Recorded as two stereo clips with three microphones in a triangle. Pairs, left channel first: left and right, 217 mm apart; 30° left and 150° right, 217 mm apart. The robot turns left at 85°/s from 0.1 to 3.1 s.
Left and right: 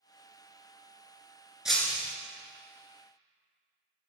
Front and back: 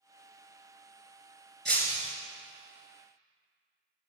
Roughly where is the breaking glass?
Behind.